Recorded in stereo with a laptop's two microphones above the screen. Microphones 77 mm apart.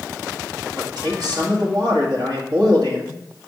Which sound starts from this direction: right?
A man speaking, at 0.8 s.